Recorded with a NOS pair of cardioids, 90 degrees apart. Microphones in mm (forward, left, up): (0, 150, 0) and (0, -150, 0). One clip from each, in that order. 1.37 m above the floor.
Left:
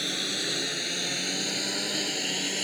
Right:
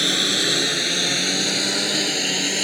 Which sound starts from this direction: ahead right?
A lawn mower, at 0.0 s.